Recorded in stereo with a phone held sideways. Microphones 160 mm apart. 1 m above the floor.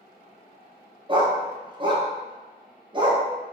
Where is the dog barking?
30° right (ahead or behind), 0.5 m.